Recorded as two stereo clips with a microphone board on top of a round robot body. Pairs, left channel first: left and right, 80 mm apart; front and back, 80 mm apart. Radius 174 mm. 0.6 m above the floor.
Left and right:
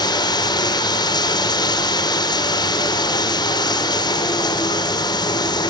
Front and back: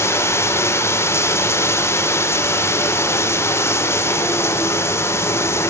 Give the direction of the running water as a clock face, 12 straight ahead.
10 o'clock.